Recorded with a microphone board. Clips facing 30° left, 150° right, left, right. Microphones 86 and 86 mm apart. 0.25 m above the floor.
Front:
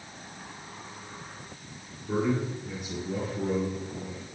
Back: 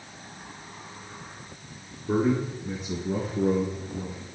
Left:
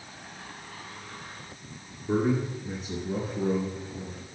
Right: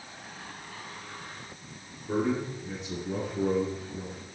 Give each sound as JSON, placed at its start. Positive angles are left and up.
{"t": 2.1, "sound": "a man speaking", "azimuth_deg": 160, "distance_m": 2.5}